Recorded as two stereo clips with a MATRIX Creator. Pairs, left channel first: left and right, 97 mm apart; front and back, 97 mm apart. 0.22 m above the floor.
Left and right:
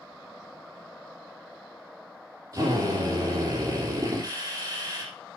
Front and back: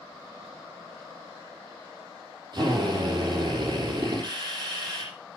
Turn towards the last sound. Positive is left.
turn(degrees=-140)